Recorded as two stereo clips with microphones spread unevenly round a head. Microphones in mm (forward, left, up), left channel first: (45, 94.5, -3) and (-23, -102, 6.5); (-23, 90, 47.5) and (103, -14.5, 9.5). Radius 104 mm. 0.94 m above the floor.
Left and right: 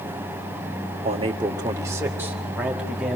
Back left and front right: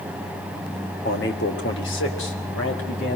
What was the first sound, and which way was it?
A man speaking, 170° right.